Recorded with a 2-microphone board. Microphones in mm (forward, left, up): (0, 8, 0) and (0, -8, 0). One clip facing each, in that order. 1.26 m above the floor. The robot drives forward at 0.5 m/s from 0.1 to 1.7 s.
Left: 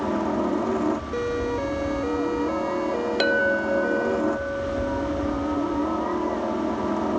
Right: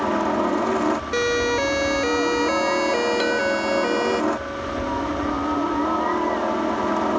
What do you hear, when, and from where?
0.0 s a helicopter: 45° right (ahead or behind)
1.1 s a siren: 85° right
3.2 s a clink: 20° left (ahead or behind)